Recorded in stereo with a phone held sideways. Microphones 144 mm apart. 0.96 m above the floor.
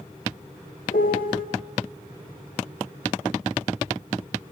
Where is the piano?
80° left, 1.8 m.